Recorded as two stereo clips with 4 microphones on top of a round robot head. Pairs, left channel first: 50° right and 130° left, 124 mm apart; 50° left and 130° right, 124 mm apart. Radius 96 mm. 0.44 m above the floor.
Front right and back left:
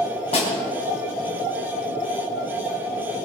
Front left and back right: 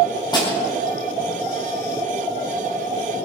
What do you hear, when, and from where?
0.3 s a snare drum: 10° right, 5 m